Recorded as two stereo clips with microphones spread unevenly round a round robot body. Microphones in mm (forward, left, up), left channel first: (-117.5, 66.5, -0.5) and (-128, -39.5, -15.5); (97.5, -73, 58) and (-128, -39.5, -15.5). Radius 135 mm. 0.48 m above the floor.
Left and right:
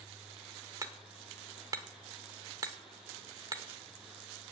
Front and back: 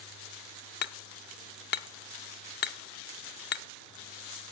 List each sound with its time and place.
0.8 s hammering: 60° right, 0.7 m